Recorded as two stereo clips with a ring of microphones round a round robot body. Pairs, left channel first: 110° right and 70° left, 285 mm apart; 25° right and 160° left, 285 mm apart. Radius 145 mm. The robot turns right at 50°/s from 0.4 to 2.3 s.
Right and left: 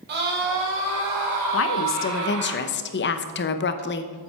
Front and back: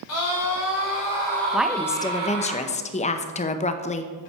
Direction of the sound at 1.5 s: 120° right.